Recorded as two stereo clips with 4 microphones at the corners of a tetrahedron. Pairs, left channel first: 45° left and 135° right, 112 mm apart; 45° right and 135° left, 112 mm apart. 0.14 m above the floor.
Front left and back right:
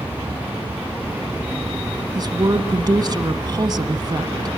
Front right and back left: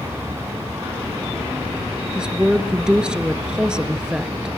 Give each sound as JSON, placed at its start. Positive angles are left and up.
{"t": 2.1, "sound": "a woman speaking", "azimuth_deg": -145, "distance_m": 1.3}